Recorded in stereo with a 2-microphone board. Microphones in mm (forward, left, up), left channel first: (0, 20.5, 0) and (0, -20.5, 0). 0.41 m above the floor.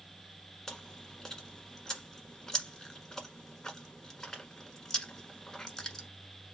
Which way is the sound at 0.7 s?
10° left (ahead or behind).